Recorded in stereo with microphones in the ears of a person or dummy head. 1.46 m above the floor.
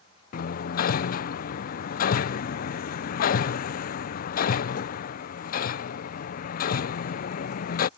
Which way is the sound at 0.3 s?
50° left (ahead or behind).